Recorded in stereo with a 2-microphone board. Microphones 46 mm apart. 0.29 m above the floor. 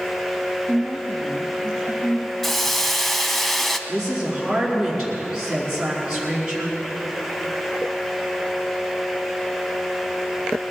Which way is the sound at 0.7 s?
15° right (ahead or behind).